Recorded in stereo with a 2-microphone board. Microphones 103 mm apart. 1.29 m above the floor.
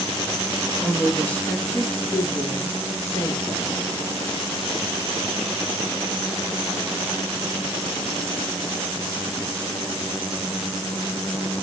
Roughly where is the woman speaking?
Centre.